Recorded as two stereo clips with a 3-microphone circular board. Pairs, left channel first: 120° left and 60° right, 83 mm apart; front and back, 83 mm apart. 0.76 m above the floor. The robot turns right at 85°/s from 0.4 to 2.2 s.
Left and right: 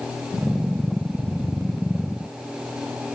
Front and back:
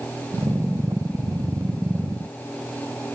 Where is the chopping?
No chopping in this recording.